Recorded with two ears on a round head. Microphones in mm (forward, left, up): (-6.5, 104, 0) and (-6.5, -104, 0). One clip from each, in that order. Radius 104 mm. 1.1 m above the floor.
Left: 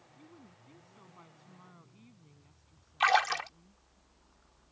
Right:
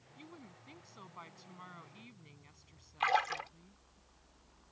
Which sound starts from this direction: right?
A woman speaking, at 0.2 s.